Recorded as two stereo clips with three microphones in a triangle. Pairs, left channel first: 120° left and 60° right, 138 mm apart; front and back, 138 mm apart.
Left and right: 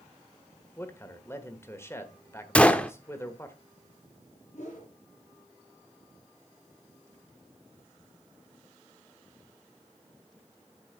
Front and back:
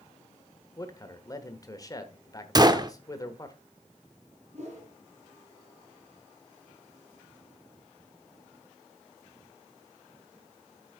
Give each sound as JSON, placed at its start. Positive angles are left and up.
{"t": 0.8, "sound": "a man speaking", "azimuth_deg": 55, "distance_m": 1.1}
{"t": 2.5, "sound": "a gunshot", "azimuth_deg": -165, "distance_m": 0.6}
{"t": 4.5, "sound": "a whoosh", "azimuth_deg": 145, "distance_m": 4.5}